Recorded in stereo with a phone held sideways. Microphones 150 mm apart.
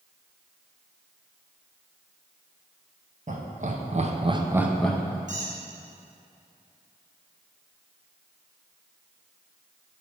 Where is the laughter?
55° right (ahead or behind), 1.0 m; by 5.2 s 15° left (ahead or behind), 0.7 m.